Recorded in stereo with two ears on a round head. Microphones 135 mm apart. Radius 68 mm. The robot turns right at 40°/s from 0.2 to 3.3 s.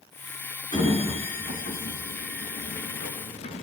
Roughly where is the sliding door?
Left.